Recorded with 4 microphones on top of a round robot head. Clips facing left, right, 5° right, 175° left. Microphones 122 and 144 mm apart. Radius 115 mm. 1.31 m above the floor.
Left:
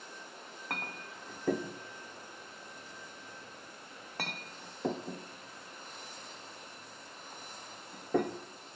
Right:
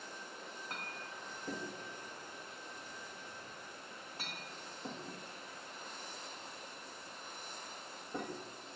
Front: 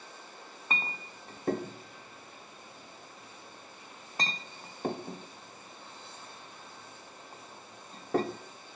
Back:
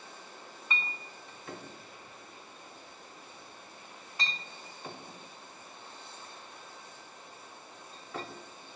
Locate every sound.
0.7 s a clink: 35° left, 0.7 m